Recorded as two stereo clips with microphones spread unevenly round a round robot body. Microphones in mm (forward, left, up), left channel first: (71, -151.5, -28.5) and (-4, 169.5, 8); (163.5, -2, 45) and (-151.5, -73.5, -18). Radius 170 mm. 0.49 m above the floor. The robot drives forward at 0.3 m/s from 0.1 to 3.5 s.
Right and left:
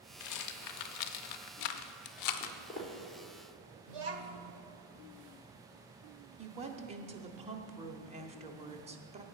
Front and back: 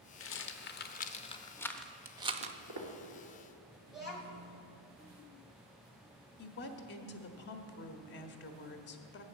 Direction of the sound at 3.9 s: 110° left.